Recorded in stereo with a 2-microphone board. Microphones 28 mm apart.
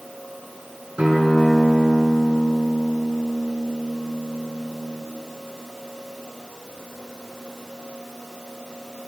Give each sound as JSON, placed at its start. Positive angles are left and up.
{"t": 1.0, "sound": "a guitar", "side_deg": -40, "distance_m": 2.5}